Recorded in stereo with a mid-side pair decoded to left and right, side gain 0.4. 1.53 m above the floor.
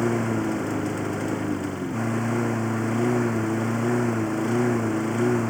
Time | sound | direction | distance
0.0 | a lawn mower | 5° left | ?